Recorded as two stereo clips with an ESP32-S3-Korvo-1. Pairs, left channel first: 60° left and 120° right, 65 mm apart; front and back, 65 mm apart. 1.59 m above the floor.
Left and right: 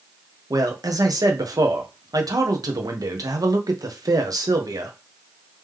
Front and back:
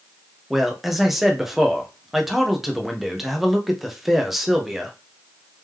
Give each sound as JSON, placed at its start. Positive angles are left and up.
{"t": 0.5, "sound": "a man speaking", "azimuth_deg": -95, "distance_m": 1.0}